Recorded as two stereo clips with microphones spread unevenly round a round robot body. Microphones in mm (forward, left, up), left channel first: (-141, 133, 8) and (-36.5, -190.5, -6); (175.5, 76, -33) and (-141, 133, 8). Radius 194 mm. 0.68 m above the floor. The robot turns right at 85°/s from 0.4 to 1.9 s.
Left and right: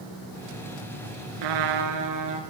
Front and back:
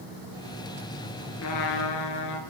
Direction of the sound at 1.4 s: 65° right.